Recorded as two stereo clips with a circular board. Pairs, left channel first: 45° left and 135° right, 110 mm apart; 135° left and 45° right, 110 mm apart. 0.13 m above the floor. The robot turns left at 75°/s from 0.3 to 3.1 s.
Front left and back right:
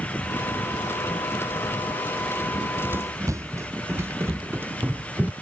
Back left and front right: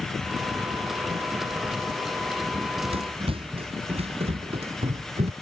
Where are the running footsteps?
35° right; by 5.3 s 60° right.